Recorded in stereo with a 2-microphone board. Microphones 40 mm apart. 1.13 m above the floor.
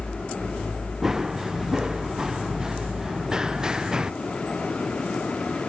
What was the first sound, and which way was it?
Running footsteps, 10° right (ahead or behind).